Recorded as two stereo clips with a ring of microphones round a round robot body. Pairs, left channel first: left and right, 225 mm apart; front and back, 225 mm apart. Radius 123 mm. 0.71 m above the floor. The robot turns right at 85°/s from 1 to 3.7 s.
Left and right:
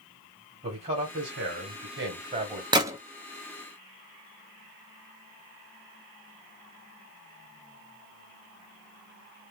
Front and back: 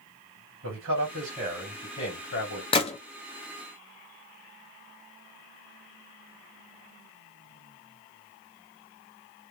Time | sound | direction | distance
0.6 | a man speaking | 150° right | 2 m
2.7 | a gunshot | 40° right | 1.0 m